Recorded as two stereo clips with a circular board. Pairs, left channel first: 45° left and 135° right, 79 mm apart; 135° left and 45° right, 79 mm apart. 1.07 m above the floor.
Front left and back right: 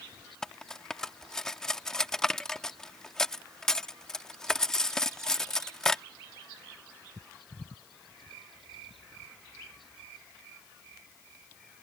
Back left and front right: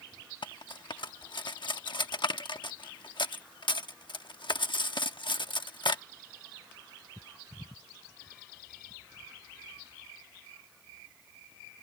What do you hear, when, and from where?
0.4 s cutlery clinking: 125° left